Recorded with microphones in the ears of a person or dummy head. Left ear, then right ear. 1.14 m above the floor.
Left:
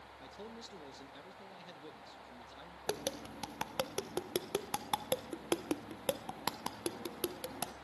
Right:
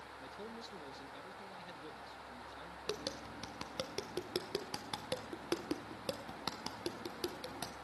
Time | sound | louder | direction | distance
0.2 | a man speaking | even | 5° left (ahead or behind) | 1.0 m
2.9 | tapping | left 4 dB | 30° left (ahead or behind) | 0.7 m